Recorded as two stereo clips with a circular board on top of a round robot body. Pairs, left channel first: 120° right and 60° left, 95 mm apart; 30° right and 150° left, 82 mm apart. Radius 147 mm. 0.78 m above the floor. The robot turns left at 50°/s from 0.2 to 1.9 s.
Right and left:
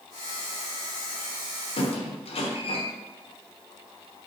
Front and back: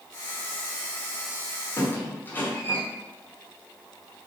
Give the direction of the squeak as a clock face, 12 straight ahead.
3 o'clock.